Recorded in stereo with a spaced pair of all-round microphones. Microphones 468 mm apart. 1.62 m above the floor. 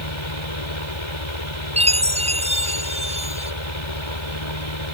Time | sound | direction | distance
0.0 | a fan | 85° left | ?
1.8 | a chime | 15° right (ahead or behind) | ?